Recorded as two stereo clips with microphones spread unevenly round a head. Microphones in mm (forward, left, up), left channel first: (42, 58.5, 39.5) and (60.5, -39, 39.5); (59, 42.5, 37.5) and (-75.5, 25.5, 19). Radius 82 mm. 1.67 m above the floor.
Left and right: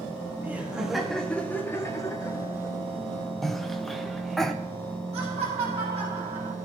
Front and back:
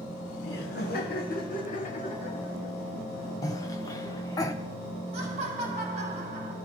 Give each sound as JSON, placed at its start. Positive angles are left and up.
{"t": 0.4, "sound": "laughter", "azimuth_deg": -10, "distance_m": 1.3}
{"t": 3.4, "sound": "a cough", "azimuth_deg": 15, "distance_m": 0.5}
{"t": 5.1, "sound": "laughter", "azimuth_deg": -125, "distance_m": 1.5}